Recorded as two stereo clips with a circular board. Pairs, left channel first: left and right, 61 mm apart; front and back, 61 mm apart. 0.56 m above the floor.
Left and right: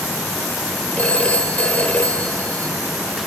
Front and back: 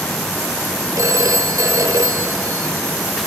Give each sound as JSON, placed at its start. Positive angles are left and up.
{"t": 1.0, "sound": "a phone ringing", "azimuth_deg": 155, "distance_m": 0.9}